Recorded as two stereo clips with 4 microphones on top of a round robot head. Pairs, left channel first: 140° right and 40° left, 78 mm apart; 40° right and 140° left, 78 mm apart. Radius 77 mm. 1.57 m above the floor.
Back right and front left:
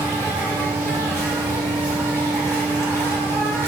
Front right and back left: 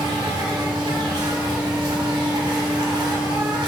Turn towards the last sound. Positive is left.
turn(degrees=160)